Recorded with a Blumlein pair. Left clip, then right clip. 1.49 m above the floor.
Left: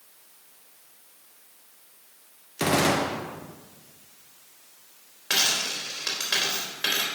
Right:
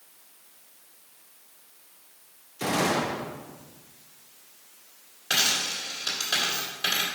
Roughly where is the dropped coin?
Ahead left.